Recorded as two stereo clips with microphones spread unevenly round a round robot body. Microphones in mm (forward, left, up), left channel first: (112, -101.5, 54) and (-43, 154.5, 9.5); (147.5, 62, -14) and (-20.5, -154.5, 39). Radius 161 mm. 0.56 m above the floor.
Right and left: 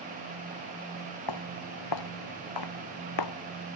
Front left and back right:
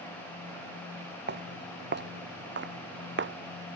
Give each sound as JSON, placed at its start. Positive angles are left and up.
{"t": 1.3, "sound": "footsteps", "azimuth_deg": -80}